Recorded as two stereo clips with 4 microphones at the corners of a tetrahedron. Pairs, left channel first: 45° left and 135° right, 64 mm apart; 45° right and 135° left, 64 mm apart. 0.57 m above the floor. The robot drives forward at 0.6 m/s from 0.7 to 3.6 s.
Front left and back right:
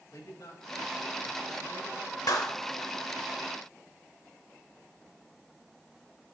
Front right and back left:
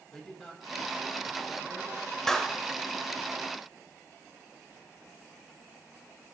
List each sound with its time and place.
0.1 s a man speaking: 40° left, 3.5 m; by 2.2 s 50° left, 3 m
2.3 s a clap: 35° left, 1.6 m; by 2.6 s 40° left, 1.5 m